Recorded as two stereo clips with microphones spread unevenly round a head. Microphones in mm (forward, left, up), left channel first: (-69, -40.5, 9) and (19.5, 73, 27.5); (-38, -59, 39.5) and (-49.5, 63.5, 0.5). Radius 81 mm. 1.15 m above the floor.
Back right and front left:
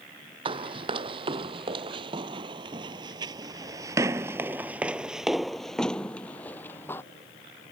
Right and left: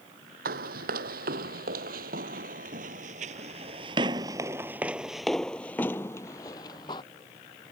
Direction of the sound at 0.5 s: 95° left.